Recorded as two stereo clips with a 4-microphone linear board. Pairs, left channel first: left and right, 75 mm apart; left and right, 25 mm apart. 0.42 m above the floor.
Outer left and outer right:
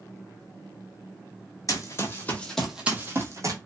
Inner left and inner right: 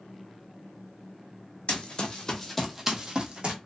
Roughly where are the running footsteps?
Left.